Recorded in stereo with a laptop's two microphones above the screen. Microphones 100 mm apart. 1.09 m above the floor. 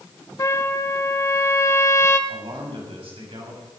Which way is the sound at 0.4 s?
35° left (ahead or behind).